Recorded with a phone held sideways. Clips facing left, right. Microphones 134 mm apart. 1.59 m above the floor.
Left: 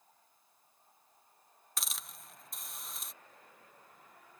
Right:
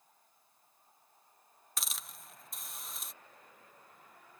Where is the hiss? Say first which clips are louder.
Even; centre (ahead or behind).